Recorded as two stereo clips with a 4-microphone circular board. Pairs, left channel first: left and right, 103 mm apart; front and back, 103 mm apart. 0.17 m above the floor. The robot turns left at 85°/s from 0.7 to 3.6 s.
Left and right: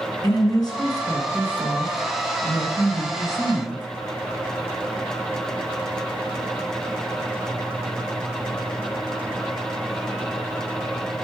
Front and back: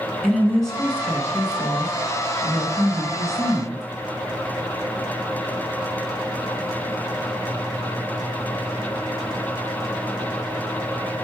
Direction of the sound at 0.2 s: 85° left.